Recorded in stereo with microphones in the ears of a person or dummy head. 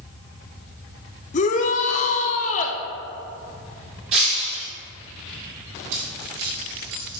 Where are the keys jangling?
75° right (ahead or behind), 2.5 m.